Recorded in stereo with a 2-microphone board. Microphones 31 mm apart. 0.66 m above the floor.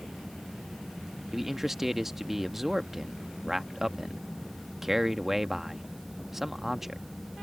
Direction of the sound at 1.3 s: 10° right (ahead or behind).